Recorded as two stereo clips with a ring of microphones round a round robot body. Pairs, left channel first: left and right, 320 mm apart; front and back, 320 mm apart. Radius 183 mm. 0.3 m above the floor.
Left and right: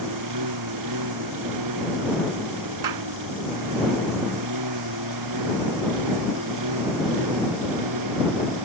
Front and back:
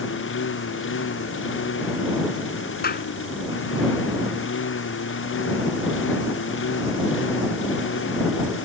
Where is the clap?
60° right.